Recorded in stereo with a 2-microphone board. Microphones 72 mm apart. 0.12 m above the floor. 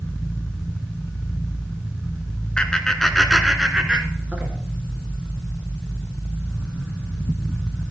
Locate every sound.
2.6 s laughter: 15° left (ahead or behind), 1.2 m; by 4.5 s 20° right (ahead or behind), 1.6 m